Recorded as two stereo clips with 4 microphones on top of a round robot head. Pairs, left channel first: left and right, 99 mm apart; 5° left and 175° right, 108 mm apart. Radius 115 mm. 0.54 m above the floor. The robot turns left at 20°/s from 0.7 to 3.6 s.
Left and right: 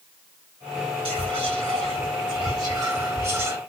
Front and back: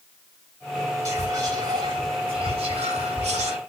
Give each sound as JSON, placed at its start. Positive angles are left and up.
{"t": 1.1, "sound": "whispering", "azimuth_deg": -115, "distance_m": 4.0}